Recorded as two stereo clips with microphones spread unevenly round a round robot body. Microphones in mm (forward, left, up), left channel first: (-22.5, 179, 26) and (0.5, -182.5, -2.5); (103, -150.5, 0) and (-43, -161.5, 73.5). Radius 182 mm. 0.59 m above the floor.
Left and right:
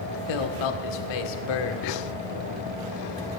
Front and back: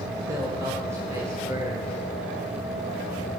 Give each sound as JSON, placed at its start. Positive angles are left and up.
{"t": 0.3, "sound": "a man speaking", "azimuth_deg": 95, "distance_m": 1.5}